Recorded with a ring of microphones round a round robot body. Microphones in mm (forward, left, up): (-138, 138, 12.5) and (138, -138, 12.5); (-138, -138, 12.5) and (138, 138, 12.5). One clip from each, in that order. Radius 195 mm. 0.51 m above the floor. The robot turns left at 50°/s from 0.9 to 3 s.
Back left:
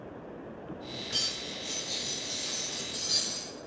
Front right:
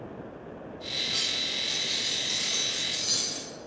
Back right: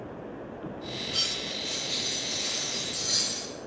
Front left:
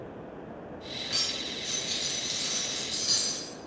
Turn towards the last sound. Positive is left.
turn(degrees=-5)